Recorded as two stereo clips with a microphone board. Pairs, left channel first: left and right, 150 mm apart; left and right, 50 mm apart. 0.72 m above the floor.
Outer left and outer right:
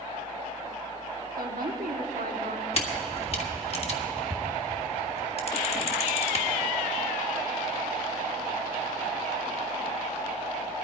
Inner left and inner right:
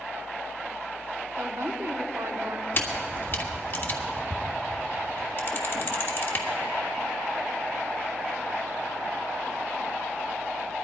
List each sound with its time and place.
1.4 s a woman speaking: 70° right (ahead or behind), 1.4 m
2.7 s a camera shutter: 45° left (ahead or behind), 1.5 m